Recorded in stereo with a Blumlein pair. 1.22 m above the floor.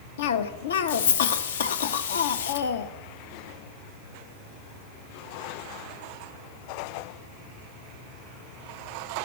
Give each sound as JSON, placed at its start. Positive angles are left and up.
{"t": 0.2, "sound": "a cough", "azimuth_deg": 60, "distance_m": 0.6}